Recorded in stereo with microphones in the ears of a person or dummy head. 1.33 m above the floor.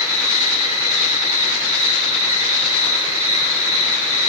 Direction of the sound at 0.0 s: 10° right (ahead or behind).